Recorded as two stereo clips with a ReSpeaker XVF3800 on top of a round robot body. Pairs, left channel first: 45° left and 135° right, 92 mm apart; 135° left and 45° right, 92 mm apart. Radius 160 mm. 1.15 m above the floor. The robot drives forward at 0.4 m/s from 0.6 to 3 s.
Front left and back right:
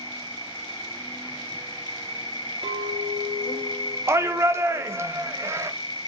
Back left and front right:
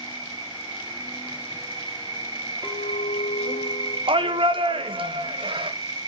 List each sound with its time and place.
0.0 s an insect: straight ahead, 1.8 m; by 6.1 s 5° left, 0.8 m
2.6 s a clink: 150° right, 2 m; by 4.0 s 155° right, 2.5 m
4.1 s a shout: 70° right, 1.1 m